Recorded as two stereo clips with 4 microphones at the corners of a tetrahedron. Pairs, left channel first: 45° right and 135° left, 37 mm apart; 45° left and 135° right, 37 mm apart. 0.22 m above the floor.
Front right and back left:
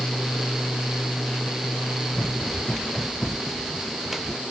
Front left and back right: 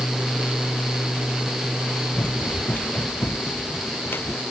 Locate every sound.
2.1 s running footsteps: 30° left; by 4.4 s 55° left